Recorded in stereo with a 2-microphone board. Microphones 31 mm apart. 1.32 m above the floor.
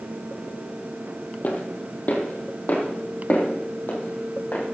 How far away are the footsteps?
About 2.5 m.